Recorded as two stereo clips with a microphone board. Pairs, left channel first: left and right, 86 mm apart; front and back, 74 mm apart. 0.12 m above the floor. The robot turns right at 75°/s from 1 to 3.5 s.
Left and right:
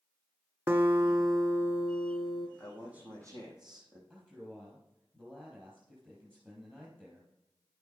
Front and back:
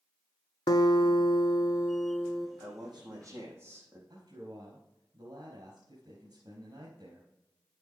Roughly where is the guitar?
Ahead.